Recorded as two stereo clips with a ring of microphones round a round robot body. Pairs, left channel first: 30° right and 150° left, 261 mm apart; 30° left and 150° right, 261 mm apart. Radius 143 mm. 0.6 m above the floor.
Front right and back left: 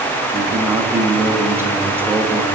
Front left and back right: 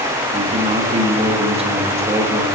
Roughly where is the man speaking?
Behind right.